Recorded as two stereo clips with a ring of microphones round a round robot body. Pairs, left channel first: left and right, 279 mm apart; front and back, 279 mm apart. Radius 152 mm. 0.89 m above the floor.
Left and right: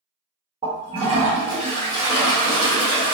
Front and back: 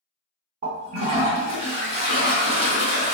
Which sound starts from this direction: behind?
A toilet flushing, at 0.6 s.